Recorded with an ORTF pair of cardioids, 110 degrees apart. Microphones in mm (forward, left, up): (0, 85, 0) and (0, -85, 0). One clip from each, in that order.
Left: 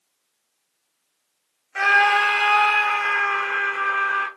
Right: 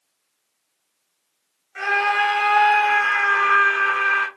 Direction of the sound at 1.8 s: 45° left.